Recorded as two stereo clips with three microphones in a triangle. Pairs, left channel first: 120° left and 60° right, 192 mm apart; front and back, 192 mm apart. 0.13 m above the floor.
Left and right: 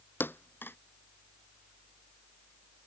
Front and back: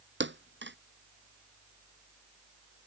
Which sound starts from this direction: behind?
A thud, at 0.2 s.